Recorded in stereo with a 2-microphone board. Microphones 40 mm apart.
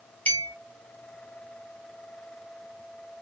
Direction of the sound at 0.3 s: 55° left (ahead or behind).